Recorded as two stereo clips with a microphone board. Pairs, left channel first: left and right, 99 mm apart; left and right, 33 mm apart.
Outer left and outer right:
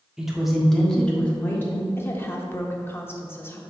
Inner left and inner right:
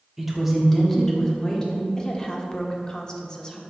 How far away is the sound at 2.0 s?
About 1.0 m.